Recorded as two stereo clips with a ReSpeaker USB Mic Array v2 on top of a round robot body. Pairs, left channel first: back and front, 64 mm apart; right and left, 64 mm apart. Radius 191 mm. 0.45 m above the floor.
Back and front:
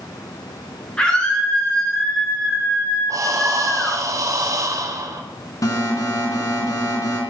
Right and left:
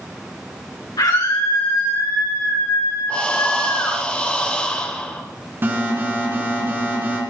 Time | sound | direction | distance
1.0 | a scream | 105° right | 7.5 m
3.1 | breathing | 20° right | 2.5 m
5.6 | an alarm | 150° left | 4 m